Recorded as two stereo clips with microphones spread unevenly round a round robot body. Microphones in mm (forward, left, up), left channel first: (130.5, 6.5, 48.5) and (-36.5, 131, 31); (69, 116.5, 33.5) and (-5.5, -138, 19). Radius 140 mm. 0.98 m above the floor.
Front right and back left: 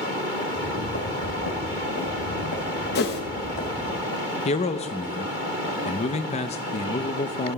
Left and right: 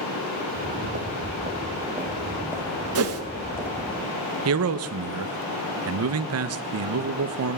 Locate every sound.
0.5 s footsteps: 55° right, 2 m; by 4.0 s 10° right, 2.5 m
3.0 s a whoosh: 80° right, 1.2 m
4.5 s a man speaking: 100° right, 0.7 m